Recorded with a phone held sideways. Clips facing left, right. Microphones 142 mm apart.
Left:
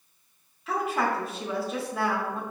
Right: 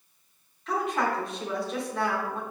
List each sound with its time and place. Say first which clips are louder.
0.7 s a woman speaking: even; 5° left (ahead or behind), 1.2 m